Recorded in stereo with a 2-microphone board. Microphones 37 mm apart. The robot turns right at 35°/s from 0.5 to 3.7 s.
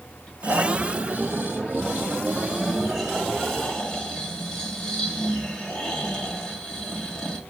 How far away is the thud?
No thud in this recording.